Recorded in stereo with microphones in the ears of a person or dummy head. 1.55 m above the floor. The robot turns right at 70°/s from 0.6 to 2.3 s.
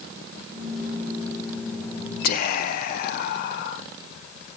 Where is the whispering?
60° left (ahead or behind), 0.5 m; by 3.8 s 55° left (ahead or behind), 0.5 m.